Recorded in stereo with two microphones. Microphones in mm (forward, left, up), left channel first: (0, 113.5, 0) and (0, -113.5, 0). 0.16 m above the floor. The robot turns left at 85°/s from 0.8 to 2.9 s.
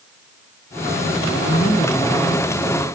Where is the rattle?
No rattle in this recording.